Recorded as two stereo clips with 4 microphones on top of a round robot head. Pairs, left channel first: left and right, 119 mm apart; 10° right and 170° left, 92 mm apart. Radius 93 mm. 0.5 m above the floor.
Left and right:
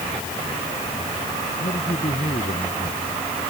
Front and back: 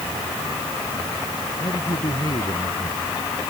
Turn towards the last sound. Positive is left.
turn(degrees=40)